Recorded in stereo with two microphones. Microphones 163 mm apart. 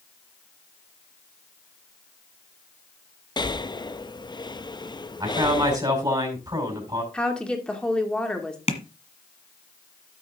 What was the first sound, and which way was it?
Breathing, 25° left (ahead or behind).